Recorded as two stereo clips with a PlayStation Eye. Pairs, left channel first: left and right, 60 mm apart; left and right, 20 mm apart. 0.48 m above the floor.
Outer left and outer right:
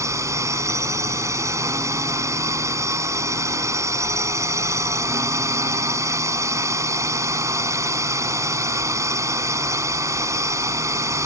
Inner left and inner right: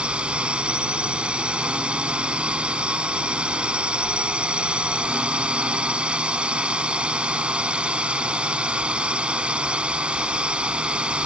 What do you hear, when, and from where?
0.0 s a drone: 65° right (ahead or behind)